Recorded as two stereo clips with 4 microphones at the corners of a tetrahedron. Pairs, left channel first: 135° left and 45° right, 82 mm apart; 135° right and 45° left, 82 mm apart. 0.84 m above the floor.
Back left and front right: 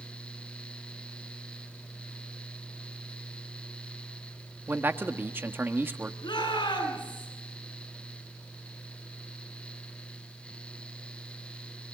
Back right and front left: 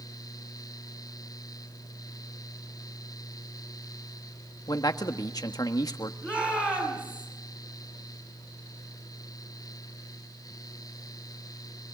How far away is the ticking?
No ticking in this recording.